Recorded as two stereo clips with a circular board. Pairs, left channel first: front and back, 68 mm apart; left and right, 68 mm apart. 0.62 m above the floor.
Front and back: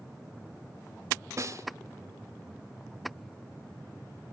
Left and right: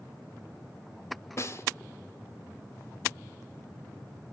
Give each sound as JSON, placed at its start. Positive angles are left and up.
{"t": 1.4, "sound": "a snare drum", "azimuth_deg": 135, "distance_m": 1.8}